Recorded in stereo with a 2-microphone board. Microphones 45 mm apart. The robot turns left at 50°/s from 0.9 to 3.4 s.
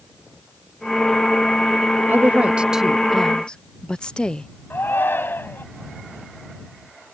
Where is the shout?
50° left (ahead or behind).